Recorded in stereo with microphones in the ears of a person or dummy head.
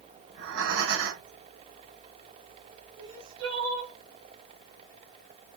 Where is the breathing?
75° right (ahead or behind), 2 m.